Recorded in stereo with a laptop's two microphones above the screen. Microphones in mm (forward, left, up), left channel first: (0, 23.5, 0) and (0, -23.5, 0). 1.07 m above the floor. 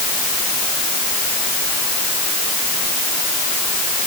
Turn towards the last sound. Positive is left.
No sound to turn to.